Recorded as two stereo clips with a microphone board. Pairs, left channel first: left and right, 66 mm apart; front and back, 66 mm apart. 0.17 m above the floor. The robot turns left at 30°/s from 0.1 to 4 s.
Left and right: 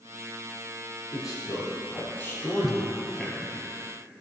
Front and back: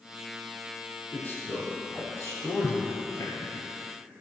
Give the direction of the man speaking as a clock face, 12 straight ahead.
10 o'clock.